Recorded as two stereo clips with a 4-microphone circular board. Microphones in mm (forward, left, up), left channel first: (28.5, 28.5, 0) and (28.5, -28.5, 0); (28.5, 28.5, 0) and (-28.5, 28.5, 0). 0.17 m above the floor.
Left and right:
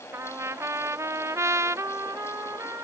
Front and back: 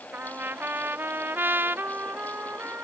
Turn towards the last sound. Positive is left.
turn(degrees=-125)